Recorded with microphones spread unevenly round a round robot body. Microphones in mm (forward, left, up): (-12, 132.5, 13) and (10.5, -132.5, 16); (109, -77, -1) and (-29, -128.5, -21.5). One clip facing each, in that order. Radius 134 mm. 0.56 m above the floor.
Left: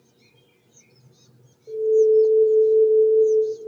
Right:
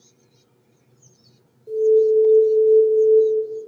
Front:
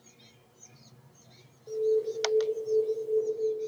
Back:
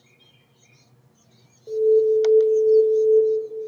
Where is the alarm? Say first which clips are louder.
Right 1 dB, back 10 dB; 120° right, 1.8 m.